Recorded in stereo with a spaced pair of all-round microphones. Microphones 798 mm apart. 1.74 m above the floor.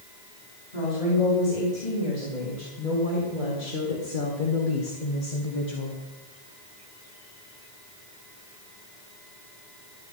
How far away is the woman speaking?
About 5.5 m.